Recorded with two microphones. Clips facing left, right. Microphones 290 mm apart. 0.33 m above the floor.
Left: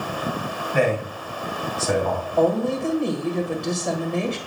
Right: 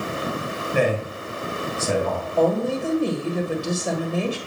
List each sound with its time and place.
0.7 s a man speaking: 45° right (ahead or behind), 1.9 m; by 2.3 s 25° right (ahead or behind), 2.5 m
2.4 s a woman speaking: 5° right (ahead or behind), 1.5 m